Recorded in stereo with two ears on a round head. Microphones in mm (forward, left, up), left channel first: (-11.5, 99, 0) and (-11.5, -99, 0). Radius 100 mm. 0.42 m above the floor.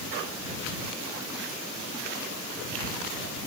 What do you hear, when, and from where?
Only background noise.